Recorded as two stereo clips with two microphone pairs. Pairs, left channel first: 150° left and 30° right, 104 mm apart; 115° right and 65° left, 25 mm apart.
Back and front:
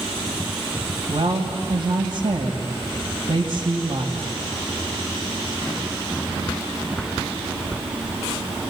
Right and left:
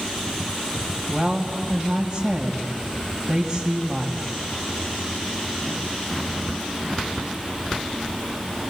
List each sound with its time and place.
1.1 s a woman speaking: 20° right, 1.8 m